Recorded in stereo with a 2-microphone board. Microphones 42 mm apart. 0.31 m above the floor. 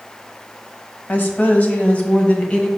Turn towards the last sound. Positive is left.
turn(degrees=25)  # may be behind; listen again after turning